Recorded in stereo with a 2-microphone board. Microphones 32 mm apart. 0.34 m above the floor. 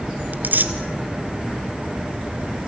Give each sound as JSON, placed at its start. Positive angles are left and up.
{"t": 0.3, "sound": "tearing paper", "side_deg": -65, "distance_m": 1.8}